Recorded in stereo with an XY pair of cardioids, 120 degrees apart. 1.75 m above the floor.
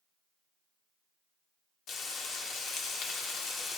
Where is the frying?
60° left, 1.2 m.